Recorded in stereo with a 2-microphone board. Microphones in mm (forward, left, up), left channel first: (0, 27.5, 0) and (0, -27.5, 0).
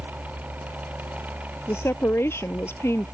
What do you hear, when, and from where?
1.7 s a woman speaking: 55° left (ahead or behind)